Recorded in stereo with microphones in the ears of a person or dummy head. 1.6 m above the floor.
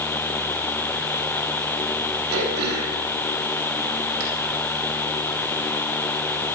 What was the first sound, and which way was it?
Throat clearing, 70° right (ahead or behind).